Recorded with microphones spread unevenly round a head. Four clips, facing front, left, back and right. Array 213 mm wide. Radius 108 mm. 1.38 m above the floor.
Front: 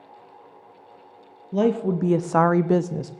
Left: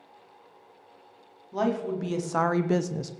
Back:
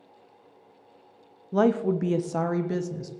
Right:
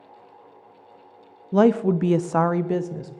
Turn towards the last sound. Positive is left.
turn(degrees=20)